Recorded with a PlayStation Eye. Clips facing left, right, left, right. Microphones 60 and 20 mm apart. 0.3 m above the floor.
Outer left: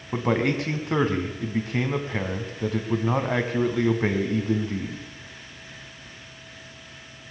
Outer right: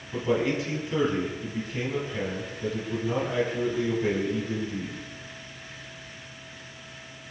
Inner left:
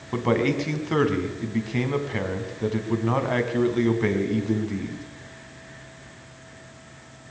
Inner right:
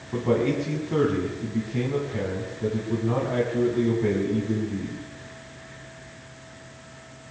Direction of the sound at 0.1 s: 60° left (ahead or behind).